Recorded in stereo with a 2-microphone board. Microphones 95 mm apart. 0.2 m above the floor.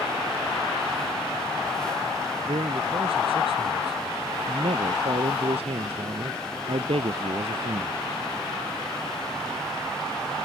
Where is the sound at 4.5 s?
75° right (ahead or behind).